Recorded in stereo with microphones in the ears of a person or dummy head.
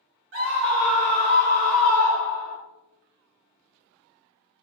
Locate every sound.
0.3 s a scream: 60° right (ahead or behind), 1.3 m; by 2.6 s 35° right (ahead or behind), 1.9 m